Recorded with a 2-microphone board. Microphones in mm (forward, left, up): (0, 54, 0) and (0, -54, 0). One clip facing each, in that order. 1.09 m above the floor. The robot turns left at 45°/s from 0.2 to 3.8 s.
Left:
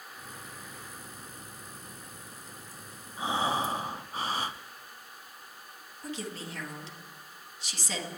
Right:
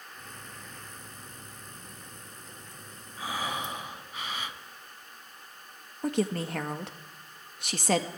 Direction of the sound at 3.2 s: 25° left (ahead or behind).